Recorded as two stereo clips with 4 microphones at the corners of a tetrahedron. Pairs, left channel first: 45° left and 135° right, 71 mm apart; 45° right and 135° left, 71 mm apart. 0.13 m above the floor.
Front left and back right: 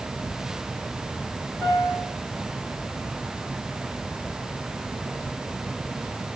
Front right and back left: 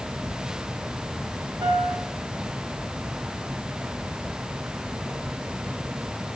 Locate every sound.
1.6 s a piano: 130° left, 7.5 m